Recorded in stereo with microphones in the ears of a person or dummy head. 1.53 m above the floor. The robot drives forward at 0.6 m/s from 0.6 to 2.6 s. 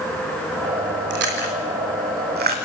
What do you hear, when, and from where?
1.1 s chewing: 60° right (ahead or behind), 4 m; by 2.6 s 50° right (ahead or behind), 4.5 m